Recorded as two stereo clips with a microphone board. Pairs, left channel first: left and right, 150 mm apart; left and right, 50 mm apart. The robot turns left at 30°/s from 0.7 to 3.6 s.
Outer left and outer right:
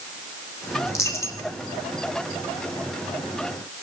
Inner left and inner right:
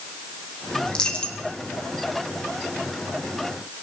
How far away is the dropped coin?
About 1.5 m.